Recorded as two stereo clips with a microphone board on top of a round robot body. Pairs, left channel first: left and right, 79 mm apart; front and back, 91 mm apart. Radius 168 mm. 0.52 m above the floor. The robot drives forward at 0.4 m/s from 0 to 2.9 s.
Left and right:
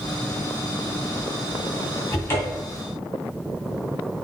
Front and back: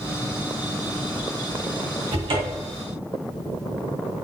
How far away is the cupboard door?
About 0.9 m.